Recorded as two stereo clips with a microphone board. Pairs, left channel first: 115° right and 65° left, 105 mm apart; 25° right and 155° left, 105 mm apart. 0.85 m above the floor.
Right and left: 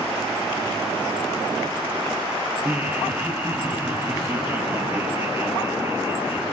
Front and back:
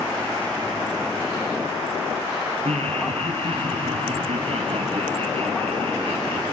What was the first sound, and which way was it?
Laughter, 140° left.